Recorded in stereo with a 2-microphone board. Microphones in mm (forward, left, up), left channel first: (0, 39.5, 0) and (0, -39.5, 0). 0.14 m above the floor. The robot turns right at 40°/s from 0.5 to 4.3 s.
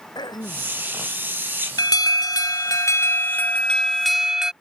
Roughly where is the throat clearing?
Left.